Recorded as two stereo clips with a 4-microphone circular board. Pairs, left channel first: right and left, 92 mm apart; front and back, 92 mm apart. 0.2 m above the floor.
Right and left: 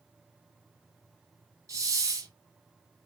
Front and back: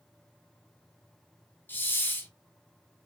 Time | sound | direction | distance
1.7 | a hiss | 60° left | 0.8 m